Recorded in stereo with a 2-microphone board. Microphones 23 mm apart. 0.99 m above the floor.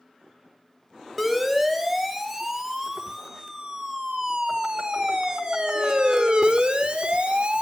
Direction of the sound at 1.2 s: 15° right (ahead or behind).